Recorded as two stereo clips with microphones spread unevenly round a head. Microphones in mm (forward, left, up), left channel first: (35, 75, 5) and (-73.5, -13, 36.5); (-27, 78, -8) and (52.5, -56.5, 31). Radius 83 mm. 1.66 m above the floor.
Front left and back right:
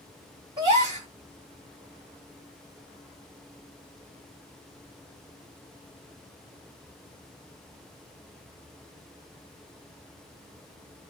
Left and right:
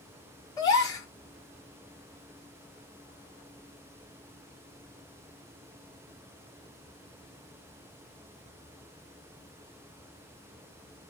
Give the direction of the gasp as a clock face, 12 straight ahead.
5 o'clock.